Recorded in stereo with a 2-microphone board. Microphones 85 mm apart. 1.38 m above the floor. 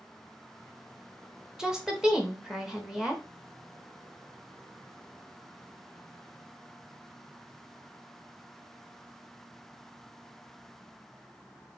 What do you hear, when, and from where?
1.6 s a woman speaking: 10° right (ahead or behind), 0.7 m